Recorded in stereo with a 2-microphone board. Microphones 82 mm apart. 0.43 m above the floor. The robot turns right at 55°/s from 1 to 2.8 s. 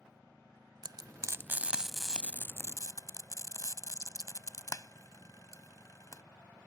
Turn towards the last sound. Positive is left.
turn(degrees=45)  # may be behind; listen again after turning